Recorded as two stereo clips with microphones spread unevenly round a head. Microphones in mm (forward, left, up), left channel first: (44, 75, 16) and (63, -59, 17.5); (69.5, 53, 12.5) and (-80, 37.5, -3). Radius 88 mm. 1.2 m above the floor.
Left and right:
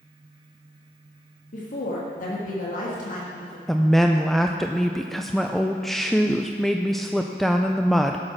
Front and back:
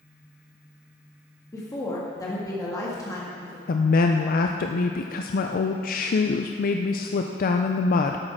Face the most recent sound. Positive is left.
turn(degrees=10)